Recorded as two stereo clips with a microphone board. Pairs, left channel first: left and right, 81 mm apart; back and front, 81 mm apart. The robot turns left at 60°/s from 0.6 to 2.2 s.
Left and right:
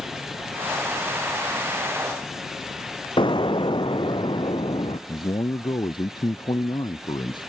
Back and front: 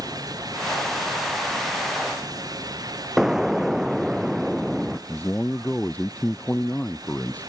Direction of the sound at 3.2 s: 85° left.